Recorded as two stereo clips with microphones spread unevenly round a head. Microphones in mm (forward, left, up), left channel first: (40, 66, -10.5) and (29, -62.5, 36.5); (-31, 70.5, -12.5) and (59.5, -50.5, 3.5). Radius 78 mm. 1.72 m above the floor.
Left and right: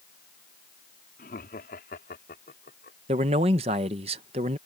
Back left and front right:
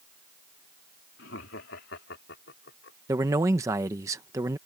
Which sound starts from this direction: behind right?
A man speaking, at 3.1 s.